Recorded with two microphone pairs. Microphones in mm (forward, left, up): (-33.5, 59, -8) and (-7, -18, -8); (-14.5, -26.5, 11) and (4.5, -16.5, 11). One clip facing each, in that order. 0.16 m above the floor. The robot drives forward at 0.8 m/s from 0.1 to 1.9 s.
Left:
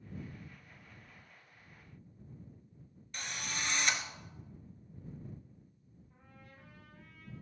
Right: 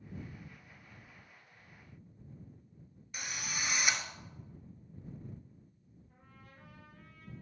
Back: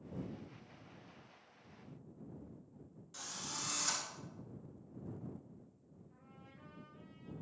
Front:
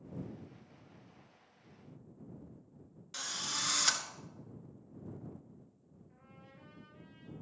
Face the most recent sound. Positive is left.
turn(degrees=-40)